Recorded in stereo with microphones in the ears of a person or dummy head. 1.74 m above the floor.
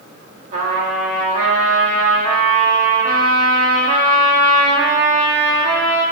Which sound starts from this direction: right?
A trumpet, at 0.5 s.